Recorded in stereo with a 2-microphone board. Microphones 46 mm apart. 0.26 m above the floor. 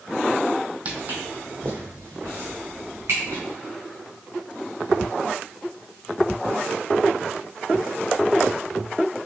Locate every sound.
0.8 s footsteps: 30° right (ahead or behind), 0.7 m; by 3.4 s 60° right (ahead or behind), 2.5 m